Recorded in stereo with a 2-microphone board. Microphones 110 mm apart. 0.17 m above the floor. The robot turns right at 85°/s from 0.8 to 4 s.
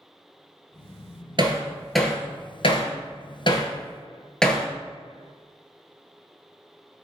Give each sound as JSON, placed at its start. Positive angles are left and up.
{"t": 1.4, "sound": "hammering", "side_deg": -45, "distance_m": 0.9}